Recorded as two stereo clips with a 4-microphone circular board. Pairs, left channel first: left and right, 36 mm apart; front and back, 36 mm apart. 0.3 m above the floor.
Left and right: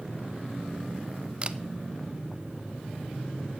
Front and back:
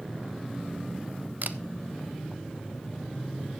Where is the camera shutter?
150° right, 0.5 m.